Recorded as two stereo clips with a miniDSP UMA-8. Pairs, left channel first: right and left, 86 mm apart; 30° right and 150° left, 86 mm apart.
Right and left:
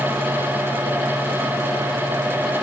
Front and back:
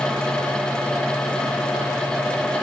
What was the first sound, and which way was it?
Only background noise.